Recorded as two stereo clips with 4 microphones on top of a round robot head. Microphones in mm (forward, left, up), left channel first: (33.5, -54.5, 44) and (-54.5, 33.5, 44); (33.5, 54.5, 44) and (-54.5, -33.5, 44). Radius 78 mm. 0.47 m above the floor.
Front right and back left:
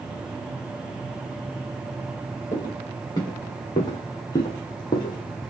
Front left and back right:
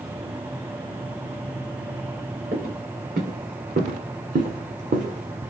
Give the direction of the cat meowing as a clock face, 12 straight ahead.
I don't hear a cat meowing.